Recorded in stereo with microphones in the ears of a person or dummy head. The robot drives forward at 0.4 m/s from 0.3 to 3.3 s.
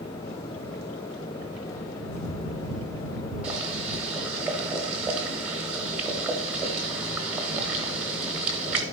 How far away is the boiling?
About 1.2 m.